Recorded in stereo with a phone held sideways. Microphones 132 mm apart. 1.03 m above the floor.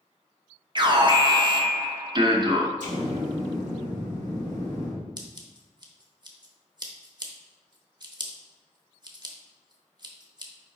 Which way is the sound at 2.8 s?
75° right (ahead or behind).